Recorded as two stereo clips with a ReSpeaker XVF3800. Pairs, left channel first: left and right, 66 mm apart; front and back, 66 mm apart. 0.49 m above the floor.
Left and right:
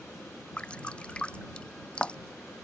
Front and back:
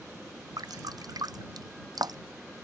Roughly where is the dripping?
Behind.